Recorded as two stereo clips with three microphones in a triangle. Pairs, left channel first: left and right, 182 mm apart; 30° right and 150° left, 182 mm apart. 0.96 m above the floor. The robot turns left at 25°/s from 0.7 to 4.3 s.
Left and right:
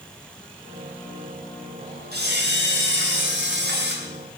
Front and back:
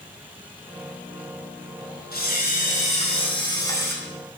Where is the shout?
No shout in this recording.